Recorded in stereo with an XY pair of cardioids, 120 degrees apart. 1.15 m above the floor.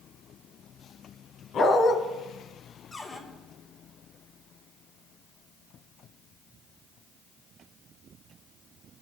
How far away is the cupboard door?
About 5 m.